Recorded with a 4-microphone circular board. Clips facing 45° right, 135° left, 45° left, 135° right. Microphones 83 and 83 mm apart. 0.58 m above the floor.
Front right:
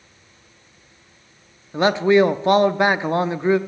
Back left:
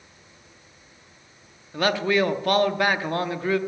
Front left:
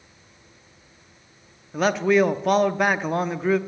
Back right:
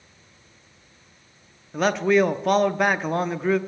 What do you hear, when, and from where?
1.7 s a man speaking: 40° right, 0.6 m